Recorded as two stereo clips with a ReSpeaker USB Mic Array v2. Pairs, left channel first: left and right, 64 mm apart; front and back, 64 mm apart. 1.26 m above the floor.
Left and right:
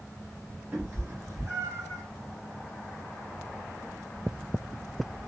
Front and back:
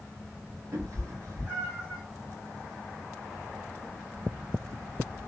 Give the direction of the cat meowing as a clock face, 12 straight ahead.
5 o'clock.